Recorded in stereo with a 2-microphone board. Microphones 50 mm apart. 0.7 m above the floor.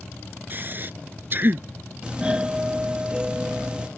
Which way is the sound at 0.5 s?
40° right (ahead or behind).